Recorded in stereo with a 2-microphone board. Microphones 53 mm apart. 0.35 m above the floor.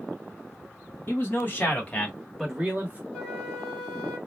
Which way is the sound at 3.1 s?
25° left (ahead or behind).